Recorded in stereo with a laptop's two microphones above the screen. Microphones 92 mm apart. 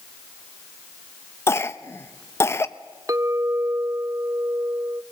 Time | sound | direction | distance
1.5 | a cough | 30° left (ahead or behind) | 0.6 m
3.1 | a clink | 35° right (ahead or behind) | 0.6 m